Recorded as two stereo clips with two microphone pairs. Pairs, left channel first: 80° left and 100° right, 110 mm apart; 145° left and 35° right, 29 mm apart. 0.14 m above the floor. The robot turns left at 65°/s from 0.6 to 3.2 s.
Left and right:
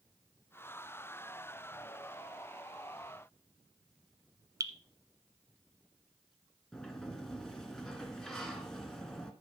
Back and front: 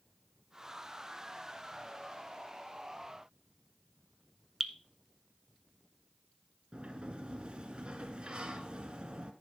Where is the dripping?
115° right, 0.9 m.